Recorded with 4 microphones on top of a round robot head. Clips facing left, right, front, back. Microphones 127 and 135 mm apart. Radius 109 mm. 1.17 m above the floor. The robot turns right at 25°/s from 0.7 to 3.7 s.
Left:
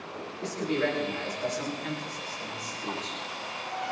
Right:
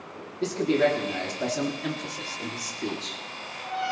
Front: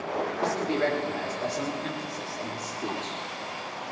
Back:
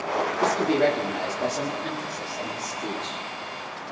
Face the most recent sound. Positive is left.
turn(degrees=-50)